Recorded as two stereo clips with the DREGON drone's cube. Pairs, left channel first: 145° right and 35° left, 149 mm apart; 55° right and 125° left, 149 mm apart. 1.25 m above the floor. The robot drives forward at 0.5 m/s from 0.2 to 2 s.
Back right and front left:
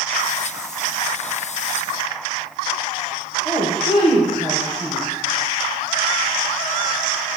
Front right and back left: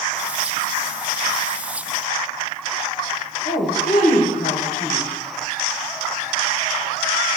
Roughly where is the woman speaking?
Right.